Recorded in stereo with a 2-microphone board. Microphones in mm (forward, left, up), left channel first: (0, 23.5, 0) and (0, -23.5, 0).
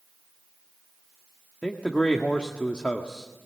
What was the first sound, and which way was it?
A man speaking, 30° left (ahead or behind).